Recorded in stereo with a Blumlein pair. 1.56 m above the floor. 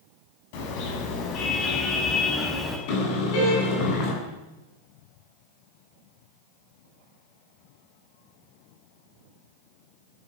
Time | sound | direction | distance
0.5 | a car horn | 45° left | 7 m
2.9 | a car horn | 45° left | 8.5 m